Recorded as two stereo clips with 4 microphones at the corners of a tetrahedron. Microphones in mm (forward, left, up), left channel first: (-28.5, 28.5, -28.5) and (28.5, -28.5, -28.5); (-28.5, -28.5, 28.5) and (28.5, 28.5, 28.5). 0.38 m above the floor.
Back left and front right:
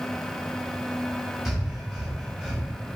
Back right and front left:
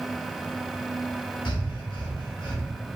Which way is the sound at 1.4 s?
130° right.